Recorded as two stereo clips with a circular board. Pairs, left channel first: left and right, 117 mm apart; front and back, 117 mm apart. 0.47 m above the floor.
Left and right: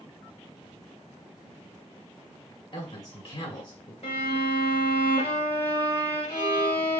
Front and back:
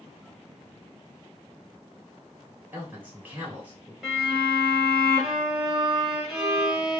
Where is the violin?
95° left, 2.5 m.